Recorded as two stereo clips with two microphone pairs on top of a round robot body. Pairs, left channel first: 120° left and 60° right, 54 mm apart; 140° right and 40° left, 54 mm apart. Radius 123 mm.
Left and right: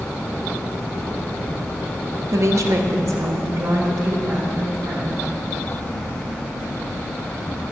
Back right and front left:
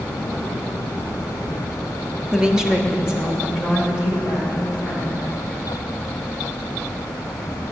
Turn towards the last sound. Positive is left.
turn(degrees=-40)